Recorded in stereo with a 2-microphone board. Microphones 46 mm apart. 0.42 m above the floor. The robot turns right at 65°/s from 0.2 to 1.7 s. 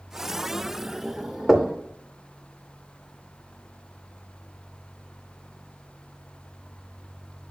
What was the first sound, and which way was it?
Knocking, 5° right (ahead or behind).